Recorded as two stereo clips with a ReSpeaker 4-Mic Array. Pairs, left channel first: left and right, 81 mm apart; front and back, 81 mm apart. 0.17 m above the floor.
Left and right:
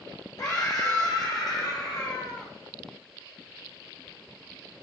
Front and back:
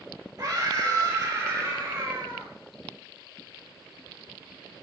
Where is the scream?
135° left, 5 m; by 2.5 s 120° left, 5.5 m.